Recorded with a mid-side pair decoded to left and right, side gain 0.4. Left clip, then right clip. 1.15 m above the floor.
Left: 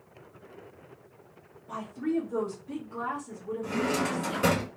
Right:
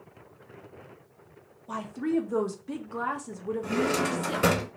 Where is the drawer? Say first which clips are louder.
Right 2 dB; 40° right, 1.6 m.